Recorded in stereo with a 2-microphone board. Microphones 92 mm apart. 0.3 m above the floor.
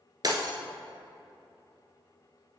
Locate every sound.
0.2 s breaking glass: 45° right (ahead or behind), 0.9 m